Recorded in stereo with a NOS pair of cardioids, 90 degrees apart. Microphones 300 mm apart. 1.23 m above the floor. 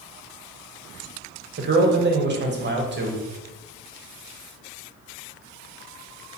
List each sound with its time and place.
1.6 s a man speaking: 35° right, 0.9 m